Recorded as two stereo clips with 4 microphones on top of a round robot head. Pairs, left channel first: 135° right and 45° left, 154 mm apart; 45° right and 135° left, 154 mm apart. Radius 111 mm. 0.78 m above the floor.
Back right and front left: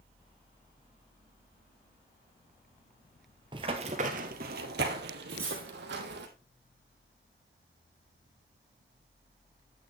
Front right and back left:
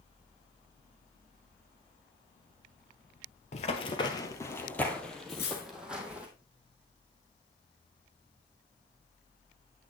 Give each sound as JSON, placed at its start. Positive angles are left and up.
{"t": 3.5, "sound": "running footsteps", "azimuth_deg": -10, "distance_m": 1.0}
{"t": 5.3, "sound": "cutlery clinking", "azimuth_deg": -30, "distance_m": 4.5}